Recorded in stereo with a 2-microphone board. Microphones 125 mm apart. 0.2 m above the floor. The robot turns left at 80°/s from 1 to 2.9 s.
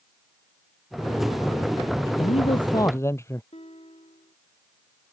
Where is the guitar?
60° left (ahead or behind).